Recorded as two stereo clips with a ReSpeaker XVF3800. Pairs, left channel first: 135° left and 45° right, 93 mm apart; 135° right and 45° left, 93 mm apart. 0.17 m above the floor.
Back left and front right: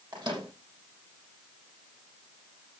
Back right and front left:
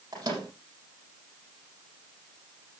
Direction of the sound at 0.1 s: 5° right.